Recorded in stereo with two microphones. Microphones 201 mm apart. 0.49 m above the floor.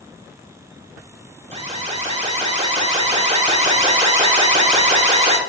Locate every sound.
1.5 s an alarm: 30° right (ahead or behind), 1.4 m